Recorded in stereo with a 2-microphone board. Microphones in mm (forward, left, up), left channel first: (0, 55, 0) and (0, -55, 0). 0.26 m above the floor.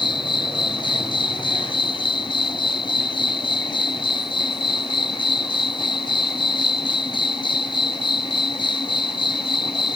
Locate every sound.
0.0 s an insect: 40° left (ahead or behind)